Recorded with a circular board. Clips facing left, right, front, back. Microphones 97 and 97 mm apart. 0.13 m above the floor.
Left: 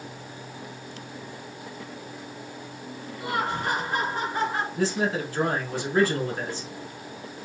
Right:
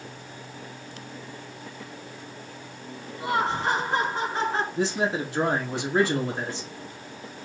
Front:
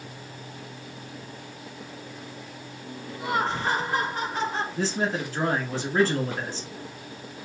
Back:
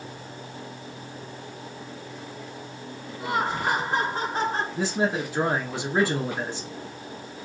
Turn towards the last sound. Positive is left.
turn(degrees=-125)